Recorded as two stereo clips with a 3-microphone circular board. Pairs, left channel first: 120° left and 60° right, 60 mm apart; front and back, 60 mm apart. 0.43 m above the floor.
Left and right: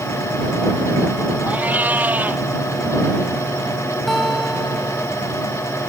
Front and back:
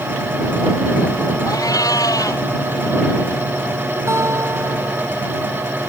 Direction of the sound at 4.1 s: 150° right.